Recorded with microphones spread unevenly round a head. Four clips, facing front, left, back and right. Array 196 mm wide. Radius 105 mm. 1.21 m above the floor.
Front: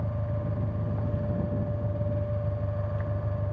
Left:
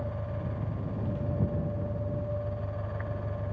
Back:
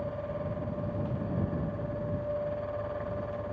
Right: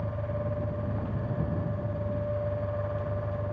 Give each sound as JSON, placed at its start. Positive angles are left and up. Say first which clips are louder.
{"t": 0.0, "sound": "an engine running", "louder": "right 3 dB, even", "azimuth_deg": -10}